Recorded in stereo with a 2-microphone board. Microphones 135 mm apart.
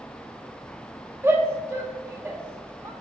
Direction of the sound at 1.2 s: 20° right (ahead or behind).